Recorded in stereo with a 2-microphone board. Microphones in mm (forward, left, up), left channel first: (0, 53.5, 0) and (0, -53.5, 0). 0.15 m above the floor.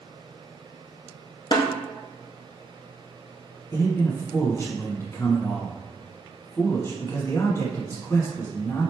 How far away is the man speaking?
About 1.1 m.